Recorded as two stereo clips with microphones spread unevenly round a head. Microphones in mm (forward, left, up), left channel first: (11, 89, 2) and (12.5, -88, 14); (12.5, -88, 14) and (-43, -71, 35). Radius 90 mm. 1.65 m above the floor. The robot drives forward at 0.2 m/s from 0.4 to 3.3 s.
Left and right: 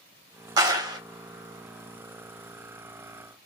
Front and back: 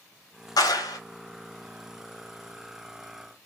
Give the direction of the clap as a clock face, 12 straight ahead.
1 o'clock.